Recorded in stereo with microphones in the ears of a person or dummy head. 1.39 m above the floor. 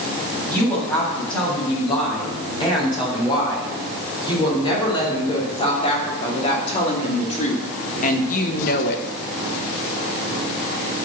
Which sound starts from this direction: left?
A woman speaking, at 0.5 s.